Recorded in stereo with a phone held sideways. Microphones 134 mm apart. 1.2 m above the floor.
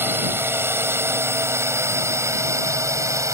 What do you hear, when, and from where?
0.0 s a drone: 20° right (ahead or behind); by 3.3 s 25° right (ahead or behind)